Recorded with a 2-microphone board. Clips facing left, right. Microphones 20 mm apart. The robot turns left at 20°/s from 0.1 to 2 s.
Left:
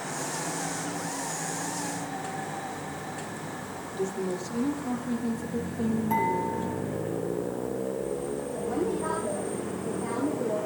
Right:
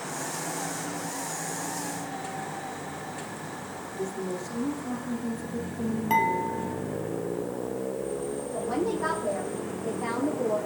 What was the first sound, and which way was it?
A woman speaking, 30° left (ahead or behind).